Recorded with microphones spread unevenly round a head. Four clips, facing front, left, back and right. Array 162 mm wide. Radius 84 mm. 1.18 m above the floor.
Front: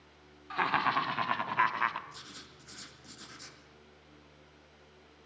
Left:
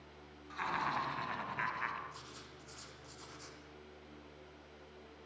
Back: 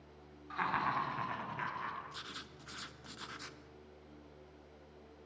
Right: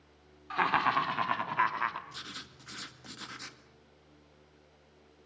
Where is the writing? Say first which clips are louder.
Right 4 dB, back 2 dB; 90° right, 1.8 m.